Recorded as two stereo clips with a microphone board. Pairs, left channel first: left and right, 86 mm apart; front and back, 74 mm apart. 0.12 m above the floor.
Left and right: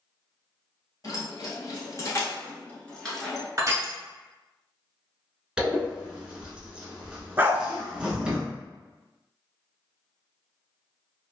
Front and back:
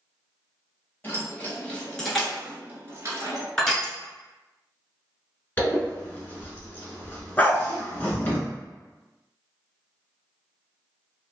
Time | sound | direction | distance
1.0 | keys jangling | 55° left | 1.5 m
3.6 | crushing | 75° right | 0.9 m
5.6 | a zipper | 20° right | 0.9 m
7.4 | a dog barking | 50° right | 0.5 m